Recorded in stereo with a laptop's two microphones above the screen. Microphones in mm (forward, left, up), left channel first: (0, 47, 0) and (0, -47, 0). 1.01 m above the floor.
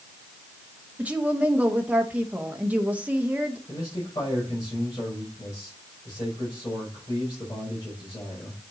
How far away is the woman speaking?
About 1.0 m.